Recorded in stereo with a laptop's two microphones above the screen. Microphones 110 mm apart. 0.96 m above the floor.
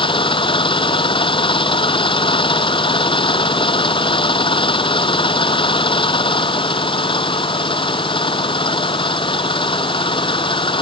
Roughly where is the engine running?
Left.